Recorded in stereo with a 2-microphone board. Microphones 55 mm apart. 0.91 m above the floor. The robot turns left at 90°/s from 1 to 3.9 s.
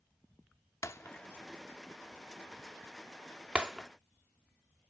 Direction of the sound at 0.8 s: 60° left (ahead or behind).